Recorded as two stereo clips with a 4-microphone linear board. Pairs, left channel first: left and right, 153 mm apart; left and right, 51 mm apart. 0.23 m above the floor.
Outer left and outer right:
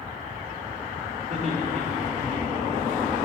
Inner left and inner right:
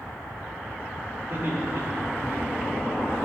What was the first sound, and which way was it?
Laughter, 55° right (ahead or behind).